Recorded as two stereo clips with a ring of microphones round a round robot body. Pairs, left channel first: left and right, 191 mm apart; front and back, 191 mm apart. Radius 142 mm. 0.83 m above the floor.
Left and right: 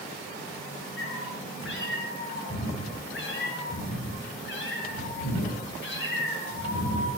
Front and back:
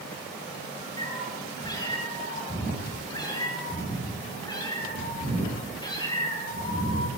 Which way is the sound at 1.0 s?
70° left.